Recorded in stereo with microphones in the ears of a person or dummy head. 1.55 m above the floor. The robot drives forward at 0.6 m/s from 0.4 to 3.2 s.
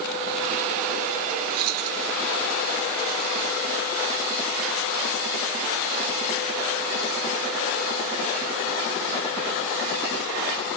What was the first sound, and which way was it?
Keys jangling, 50° right (ahead or behind).